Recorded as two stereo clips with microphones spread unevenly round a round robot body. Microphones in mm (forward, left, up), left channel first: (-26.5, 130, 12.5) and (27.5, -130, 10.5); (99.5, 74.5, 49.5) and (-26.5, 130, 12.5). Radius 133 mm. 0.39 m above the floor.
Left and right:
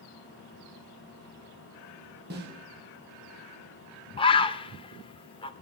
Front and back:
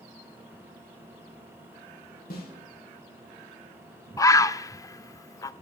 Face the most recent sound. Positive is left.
turn(degrees=50)